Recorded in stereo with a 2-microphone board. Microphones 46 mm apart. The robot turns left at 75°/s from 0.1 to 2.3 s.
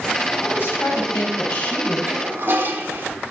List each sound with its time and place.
0.4 s a woman speaking: 135° left, 3 m; by 2.0 s 20° left, 3 m
2.1 s a toilet flushing: 55° right (ahead or behind), 1.4 m; by 3.1 s 50° right (ahead or behind), 1.4 m